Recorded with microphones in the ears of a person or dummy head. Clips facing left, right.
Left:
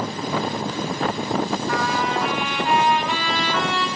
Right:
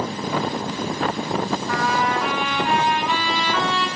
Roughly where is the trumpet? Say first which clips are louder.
Right 1 dB; right.